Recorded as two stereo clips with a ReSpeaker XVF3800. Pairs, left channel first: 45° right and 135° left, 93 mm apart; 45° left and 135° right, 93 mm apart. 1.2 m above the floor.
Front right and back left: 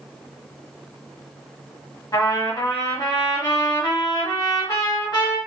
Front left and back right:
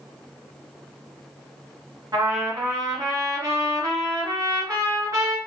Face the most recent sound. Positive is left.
turn(degrees=-85)